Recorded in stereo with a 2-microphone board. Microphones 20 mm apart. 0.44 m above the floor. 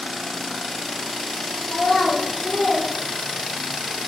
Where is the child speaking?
45° left (ahead or behind), 0.5 m; by 3.8 s 55° left (ahead or behind), 1.4 m.